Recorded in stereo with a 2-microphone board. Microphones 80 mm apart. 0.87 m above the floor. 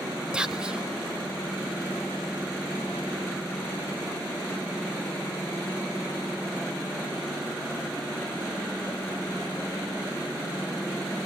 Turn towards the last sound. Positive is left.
turn(degrees=-10)  # may be behind; listen again after turning